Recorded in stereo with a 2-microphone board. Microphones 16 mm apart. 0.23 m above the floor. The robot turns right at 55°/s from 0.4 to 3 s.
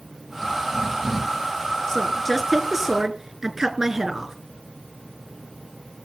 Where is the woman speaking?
140° left, 3.5 m; by 4.3 s 160° right, 3.5 m.